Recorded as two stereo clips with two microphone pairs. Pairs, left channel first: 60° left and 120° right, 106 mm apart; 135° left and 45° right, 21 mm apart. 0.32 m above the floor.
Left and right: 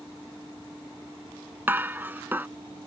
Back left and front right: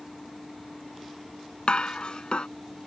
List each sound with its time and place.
1.7 s dishes clattering: 170° left